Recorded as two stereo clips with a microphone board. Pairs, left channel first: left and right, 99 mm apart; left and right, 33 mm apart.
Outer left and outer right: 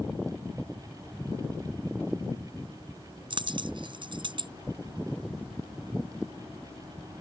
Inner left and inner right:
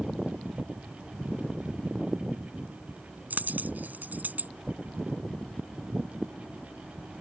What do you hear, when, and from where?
3.3 s a dropped coin: 50° right (ahead or behind)